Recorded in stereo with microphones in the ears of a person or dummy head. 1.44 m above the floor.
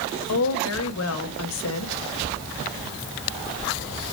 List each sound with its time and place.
0.3 s a woman speaking: 80° left, 1.8 m